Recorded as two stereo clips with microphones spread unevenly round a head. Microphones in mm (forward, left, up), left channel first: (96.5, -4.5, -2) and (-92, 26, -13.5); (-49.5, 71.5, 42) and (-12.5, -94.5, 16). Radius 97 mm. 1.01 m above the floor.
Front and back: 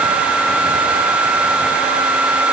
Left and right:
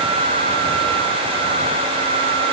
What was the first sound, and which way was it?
Only background noise.